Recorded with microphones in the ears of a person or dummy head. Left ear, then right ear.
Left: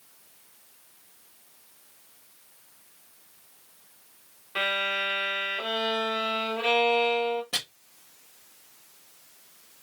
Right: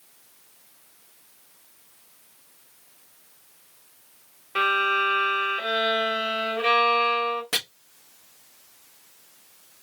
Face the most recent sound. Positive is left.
turn(degrees=-50)  # may be behind; listen again after turning